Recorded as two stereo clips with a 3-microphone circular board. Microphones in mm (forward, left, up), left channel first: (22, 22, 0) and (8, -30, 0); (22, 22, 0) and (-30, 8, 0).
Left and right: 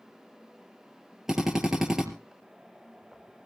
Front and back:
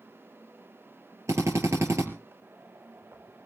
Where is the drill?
175° left, 3.5 m.